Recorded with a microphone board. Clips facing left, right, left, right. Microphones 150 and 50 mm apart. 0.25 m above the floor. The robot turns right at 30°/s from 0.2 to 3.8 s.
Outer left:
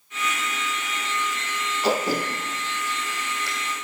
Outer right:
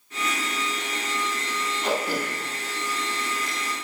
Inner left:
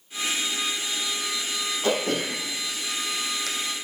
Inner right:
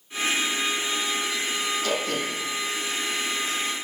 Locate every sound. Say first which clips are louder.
1.8 s throat clearing: outer left 4 dB, inner left 2 dB; 35° left (ahead or behind), 2 m; by 3.5 s 85° left, 2 m